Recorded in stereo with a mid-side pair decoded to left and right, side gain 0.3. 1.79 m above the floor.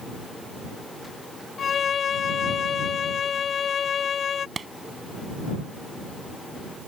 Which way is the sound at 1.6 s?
65° left.